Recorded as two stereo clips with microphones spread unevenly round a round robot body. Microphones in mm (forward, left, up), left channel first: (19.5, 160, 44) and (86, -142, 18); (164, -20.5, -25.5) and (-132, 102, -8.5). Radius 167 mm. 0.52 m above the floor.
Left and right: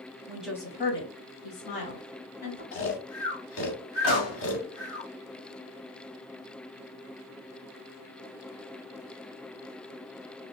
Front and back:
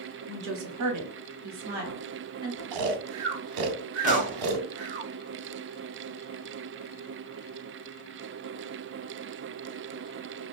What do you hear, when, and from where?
0.3 s a woman speaking: 145° right, 0.9 m; by 2.6 s 110° left, 2 m
2.7 s snoring: 155° left, 0.8 m
4.0 s a pop: 90° left, 1.5 m